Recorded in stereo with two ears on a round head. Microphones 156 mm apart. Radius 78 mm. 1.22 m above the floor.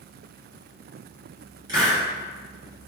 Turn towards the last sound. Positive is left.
turn(degrees=-25)  # may be behind; listen again after turning